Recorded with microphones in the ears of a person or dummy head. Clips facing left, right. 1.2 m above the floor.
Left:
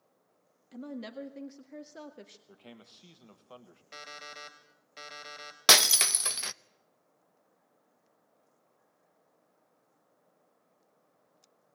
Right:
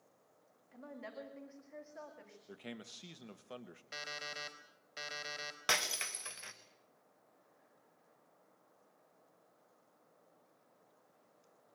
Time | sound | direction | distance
0.7 | a woman speaking | 50° left (ahead or behind) | 1.7 m
2.5 | a man speaking | 25° right (ahead or behind) | 1.6 m
3.9 | an alarm clock | 5° right (ahead or behind) | 3.5 m
5.7 | breaking glass | 75° left (ahead or behind) | 0.8 m